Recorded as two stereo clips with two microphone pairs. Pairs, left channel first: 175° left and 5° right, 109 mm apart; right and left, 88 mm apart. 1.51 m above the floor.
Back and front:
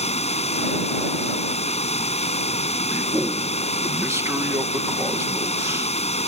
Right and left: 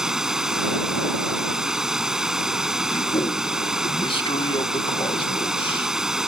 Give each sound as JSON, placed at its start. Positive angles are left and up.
{"t": 0.0, "sound": "running water", "azimuth_deg": 175}
{"t": 2.9, "sound": "a man speaking", "azimuth_deg": -75}